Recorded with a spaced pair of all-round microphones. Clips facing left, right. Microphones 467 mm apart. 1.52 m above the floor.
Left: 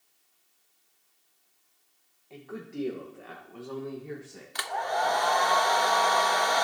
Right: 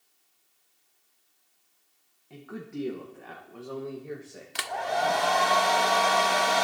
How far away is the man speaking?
About 1.2 m.